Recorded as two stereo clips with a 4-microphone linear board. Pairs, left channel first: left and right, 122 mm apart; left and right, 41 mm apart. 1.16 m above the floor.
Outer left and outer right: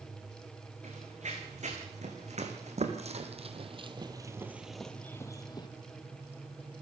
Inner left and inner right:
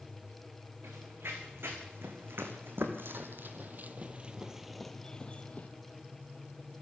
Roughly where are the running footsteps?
Right.